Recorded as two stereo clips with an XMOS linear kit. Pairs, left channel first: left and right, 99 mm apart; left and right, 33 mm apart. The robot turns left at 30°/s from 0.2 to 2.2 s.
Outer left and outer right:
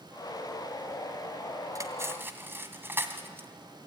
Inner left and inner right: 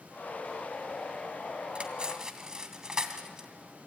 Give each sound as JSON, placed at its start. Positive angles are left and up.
{"t": 1.8, "sound": "cutlery clinking", "side_deg": -35, "distance_m": 2.0}